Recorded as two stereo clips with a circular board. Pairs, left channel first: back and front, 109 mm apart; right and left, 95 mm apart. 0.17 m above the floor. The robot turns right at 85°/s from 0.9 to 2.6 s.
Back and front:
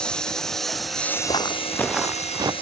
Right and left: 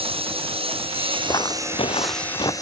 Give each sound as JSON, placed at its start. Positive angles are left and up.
{"t": 0.0, "sound": "a lawn mower", "azimuth_deg": 100}
{"t": 1.3, "sound": "footsteps", "azimuth_deg": -140}